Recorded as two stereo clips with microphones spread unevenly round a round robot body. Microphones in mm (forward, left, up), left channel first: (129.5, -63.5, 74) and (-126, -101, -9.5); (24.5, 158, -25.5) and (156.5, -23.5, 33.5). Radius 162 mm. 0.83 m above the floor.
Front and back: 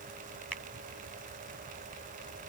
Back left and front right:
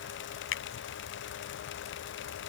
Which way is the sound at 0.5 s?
95° left.